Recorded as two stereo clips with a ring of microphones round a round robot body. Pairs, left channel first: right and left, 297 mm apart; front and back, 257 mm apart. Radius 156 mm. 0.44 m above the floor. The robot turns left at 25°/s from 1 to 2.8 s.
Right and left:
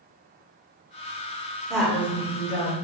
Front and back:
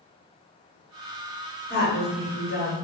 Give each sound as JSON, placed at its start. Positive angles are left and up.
{"t": 1.7, "sound": "a woman speaking", "azimuth_deg": 0, "distance_m": 1.5}